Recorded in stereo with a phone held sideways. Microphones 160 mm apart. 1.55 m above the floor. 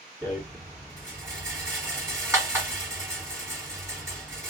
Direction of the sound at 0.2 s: 20° right (ahead or behind).